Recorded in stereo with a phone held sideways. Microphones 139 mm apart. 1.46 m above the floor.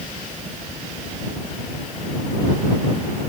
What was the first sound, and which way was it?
Only background noise.